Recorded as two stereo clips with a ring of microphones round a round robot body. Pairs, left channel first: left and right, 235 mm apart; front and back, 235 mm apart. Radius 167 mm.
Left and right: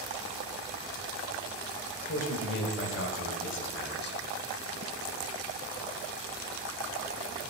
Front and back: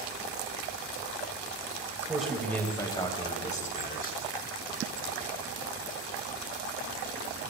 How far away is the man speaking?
About 1.5 m.